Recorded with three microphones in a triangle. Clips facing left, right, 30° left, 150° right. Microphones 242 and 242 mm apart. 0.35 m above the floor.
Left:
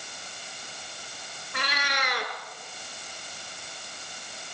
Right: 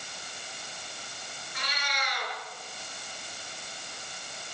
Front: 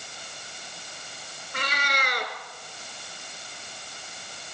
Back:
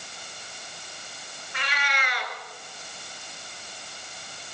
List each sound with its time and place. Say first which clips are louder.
1.5 s a cat meowing: left 6 dB, front 3 dB; 75° left, 2.5 m